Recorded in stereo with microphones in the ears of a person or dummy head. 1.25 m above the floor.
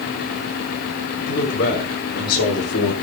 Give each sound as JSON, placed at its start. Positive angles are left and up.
{"t": 1.3, "sound": "a man speaking", "side_deg": 50, "distance_m": 4.5}